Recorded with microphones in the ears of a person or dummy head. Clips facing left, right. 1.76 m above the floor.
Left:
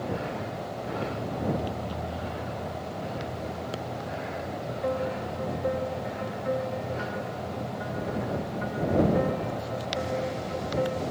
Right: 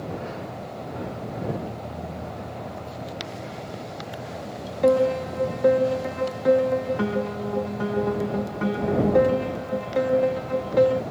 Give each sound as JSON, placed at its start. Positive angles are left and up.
{"t": 4.8, "sound": "a piano", "side_deg": -75}